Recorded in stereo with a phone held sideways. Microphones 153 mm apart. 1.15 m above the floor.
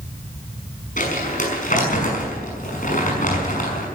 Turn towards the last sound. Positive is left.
turn(degrees=60)  # may be behind; listen again after turning